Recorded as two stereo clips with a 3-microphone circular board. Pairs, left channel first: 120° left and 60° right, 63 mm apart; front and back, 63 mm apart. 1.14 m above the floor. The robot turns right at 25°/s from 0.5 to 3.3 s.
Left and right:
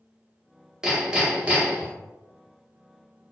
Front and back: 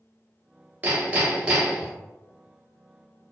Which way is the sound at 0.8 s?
135° right.